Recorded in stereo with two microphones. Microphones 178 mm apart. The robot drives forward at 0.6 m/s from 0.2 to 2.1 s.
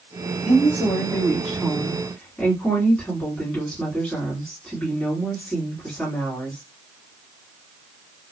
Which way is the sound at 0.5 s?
10° left (ahead or behind).